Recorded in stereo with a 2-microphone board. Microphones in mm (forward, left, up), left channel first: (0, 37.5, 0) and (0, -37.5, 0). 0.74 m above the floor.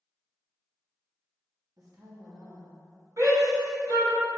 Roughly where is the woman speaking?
Right.